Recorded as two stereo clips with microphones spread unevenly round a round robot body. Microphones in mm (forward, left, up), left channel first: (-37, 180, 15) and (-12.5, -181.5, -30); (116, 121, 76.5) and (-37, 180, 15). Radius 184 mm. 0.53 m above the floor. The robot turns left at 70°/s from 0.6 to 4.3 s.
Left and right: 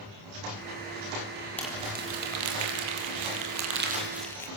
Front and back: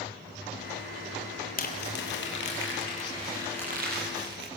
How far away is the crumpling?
About 5 m.